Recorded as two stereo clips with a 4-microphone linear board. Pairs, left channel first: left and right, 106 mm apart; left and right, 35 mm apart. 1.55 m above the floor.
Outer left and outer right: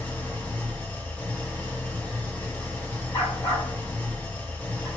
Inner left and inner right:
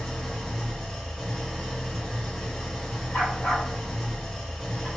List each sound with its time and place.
0.0 s an engine running: 15° left (ahead or behind), 0.7 m
3.1 s a dog barking: 35° left (ahead or behind), 1.8 m